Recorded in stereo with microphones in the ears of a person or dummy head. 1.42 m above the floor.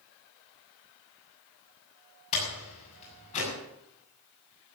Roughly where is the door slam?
Left.